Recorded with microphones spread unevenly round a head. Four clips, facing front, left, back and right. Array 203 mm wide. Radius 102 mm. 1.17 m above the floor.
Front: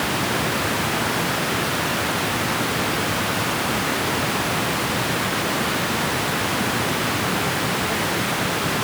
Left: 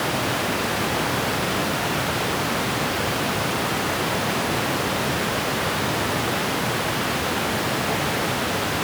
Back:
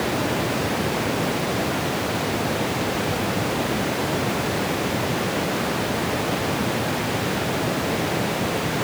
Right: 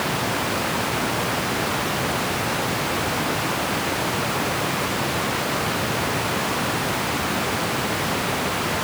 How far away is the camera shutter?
I don't hear a camera shutter.